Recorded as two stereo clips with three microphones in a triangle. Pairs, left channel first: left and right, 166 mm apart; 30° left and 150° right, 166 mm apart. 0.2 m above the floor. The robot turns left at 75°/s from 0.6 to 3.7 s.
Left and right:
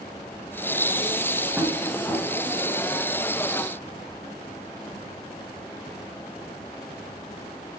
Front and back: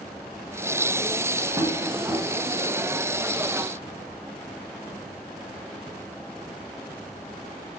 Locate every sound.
1.6 s tapping: 160° right, 1.6 m; by 2.2 s 150° left, 1.6 m